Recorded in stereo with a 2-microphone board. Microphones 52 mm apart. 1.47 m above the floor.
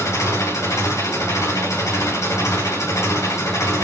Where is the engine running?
80° left, 8.5 m.